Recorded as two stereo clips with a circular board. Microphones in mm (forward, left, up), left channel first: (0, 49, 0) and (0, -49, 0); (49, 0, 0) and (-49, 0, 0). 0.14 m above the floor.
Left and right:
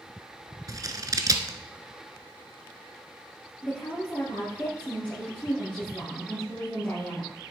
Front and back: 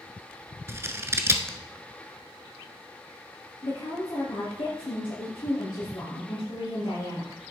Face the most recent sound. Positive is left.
turn(degrees=15)